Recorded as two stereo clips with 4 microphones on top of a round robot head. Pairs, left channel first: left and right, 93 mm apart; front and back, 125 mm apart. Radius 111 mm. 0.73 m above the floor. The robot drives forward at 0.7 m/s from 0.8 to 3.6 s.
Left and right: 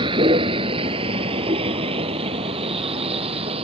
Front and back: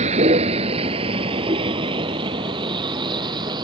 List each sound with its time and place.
0.0 s a vehicle: 135° right; by 3.6 s 115° right